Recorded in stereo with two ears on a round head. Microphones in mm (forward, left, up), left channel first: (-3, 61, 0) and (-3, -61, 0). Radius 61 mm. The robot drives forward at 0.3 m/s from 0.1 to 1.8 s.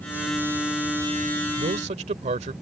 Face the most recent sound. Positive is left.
turn(degrees=-50)  # may be behind; listen again after turning